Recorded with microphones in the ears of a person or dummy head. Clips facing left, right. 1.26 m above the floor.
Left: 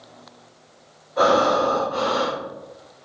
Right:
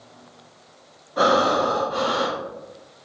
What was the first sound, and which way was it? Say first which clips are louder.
Breathing: left 1 dB; 45° right (ahead or behind).